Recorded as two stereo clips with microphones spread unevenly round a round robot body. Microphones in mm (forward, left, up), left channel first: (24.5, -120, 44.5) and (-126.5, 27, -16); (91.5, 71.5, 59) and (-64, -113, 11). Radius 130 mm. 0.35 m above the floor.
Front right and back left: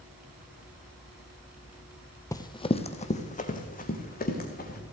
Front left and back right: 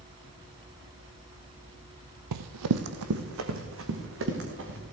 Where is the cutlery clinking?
No cutlery clinking in this recording.